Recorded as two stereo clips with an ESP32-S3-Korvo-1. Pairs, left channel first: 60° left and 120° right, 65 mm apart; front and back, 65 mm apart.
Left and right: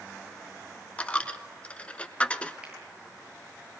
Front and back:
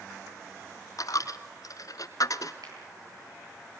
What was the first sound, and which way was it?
A dropped coin, 10° right.